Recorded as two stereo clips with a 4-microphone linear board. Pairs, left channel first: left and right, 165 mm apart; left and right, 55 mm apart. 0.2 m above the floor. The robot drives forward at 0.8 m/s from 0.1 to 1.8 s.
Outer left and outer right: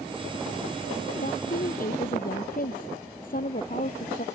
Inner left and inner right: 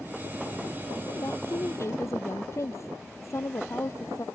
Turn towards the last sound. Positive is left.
turn(degrees=60)  # may be behind; listen again after turning